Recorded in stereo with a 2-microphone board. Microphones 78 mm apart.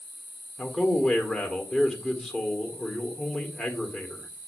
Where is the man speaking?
5° left (ahead or behind), 1.6 m.